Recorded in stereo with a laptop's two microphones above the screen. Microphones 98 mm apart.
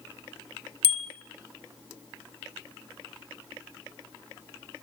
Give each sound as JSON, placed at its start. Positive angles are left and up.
{"t": 0.8, "sound": "a bicycle bell", "side_deg": 85, "distance_m": 3.0}